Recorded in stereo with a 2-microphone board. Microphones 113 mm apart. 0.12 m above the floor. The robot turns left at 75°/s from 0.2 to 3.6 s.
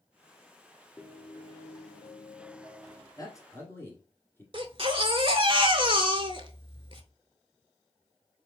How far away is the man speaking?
About 1.6 m.